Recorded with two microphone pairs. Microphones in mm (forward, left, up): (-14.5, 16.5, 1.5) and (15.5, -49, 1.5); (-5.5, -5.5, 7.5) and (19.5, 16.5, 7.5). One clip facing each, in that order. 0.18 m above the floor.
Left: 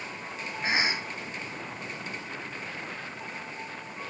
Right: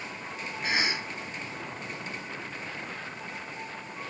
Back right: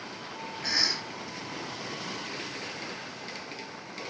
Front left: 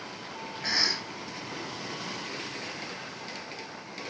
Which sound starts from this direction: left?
A cough, at 0.6 s.